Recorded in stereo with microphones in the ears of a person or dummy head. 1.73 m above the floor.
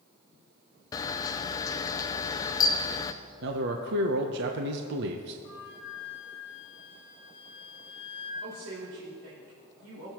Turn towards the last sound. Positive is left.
turn(degrees=-85)